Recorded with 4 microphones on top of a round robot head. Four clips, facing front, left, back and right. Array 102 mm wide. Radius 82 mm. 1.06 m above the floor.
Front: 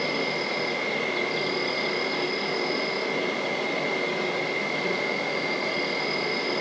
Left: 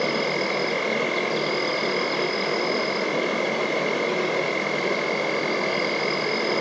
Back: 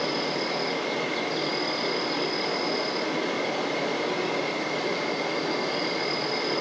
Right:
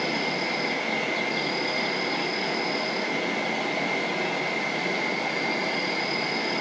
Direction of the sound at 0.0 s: 90° left.